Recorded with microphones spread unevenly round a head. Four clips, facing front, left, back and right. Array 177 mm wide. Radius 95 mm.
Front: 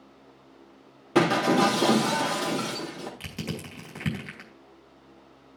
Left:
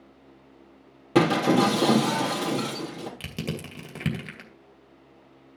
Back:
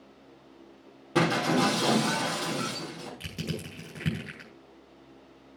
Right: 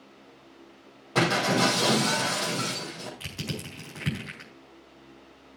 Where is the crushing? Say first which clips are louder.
Left 3 dB, front 1 dB; 100° left, 2.5 m.